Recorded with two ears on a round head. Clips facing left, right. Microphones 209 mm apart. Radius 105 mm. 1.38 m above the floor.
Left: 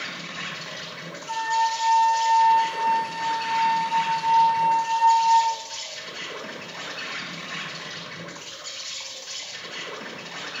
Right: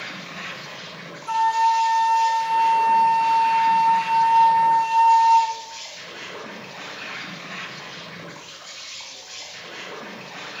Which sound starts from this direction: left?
An insect, at 0.0 s.